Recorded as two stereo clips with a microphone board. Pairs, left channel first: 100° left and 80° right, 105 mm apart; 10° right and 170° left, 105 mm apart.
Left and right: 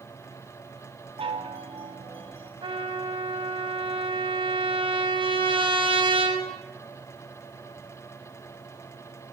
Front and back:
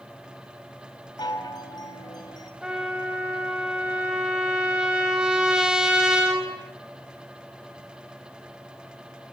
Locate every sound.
1.2 s a chime: 55° right, 4 m
2.6 s a trumpet: 110° right, 6 m